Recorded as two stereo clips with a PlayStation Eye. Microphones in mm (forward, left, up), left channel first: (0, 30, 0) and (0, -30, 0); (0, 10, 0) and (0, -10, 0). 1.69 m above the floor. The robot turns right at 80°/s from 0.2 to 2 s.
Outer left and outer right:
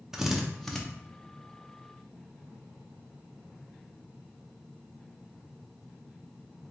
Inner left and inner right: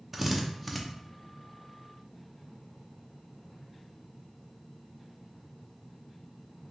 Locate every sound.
0.1 s a drill: 10° right (ahead or behind), 0.6 m; by 0.8 s 5° left (ahead or behind), 0.6 m